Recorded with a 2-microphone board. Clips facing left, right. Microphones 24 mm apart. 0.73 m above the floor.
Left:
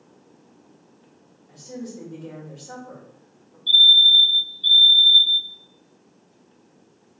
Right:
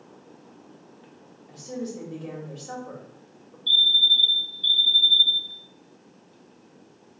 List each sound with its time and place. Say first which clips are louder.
1.5 s a woman speaking: right 2 dB; 55° right (ahead or behind), 2 m
3.7 s a fire alarm: left 5 dB; 20° right (ahead or behind), 1.4 m